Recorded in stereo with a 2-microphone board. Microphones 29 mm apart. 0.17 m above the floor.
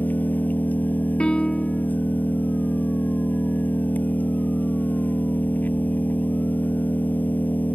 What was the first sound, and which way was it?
An engine running, 70° left (ahead or behind).